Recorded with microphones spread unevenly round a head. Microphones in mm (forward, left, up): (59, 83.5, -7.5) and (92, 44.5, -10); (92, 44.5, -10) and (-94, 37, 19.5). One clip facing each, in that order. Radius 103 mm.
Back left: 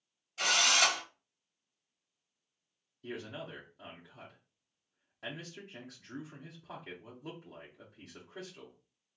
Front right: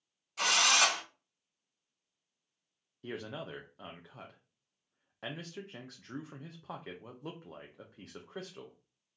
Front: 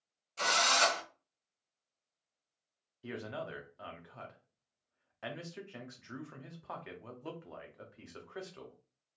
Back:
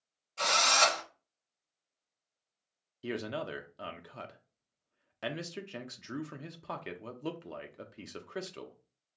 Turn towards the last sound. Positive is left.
turn(degrees=-125)